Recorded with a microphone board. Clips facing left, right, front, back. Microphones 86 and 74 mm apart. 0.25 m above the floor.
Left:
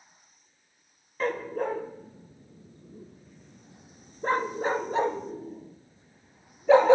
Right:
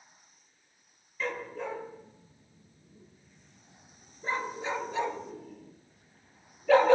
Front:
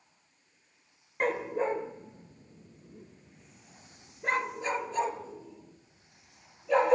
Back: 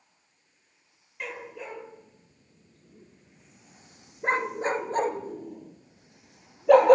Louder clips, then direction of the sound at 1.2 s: Left 6 dB, front 9 dB; 45° left.